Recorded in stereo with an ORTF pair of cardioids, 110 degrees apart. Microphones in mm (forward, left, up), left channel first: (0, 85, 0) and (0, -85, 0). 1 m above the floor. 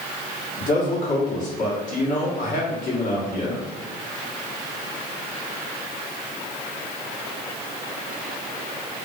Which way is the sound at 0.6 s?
50° left.